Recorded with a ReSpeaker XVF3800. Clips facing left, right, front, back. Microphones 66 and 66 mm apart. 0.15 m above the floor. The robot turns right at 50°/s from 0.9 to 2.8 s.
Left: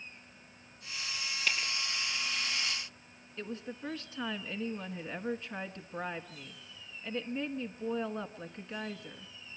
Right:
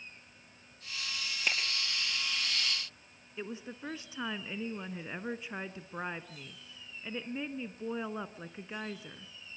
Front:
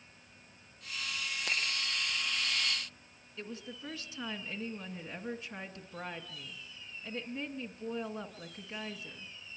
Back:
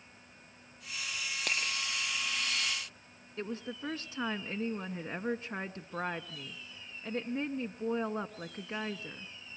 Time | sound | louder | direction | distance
1.5 | a finger snap | even, back 1 dB | 160° right | 5 m
3.4 | a woman speaking | left 1 dB, back 5 dB | 160° right | 1.3 m